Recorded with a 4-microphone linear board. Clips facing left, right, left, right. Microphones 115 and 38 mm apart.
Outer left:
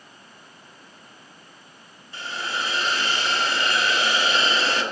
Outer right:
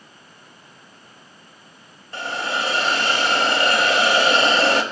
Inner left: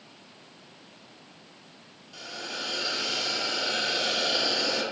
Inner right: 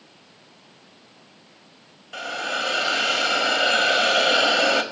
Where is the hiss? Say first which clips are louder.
Outer right 5 dB, inner right 10 dB; 75° right (ahead or behind), 1.6 m.